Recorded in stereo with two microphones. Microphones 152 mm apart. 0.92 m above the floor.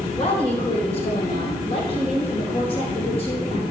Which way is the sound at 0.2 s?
35° left (ahead or behind).